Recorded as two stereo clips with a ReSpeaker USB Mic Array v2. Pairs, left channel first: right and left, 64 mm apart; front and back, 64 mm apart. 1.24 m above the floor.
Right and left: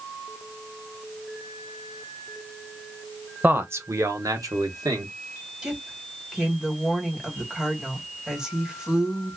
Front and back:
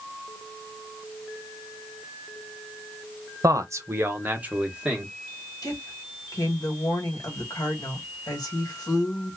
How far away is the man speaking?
About 0.9 m.